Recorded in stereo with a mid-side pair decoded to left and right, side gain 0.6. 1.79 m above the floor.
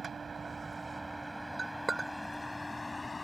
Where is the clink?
15° right.